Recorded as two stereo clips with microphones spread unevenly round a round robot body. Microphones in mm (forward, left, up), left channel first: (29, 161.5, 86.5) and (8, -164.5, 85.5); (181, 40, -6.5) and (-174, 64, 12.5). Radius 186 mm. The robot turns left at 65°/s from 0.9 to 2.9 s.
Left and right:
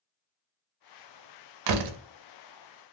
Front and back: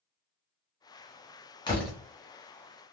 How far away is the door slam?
About 0.6 m.